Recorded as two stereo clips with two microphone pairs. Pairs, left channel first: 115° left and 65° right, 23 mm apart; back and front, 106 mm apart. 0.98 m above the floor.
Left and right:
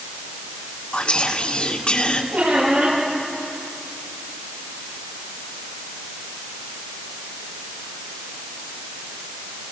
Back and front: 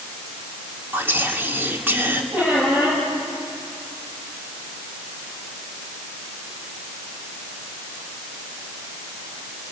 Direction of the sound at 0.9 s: 70° left.